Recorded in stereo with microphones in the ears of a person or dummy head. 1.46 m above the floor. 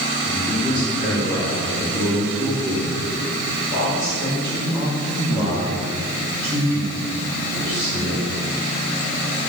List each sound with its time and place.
0.2 s a woman speaking: centre (ahead or behind), 4.5 m; by 8.3 s 20° right (ahead or behind), 9 m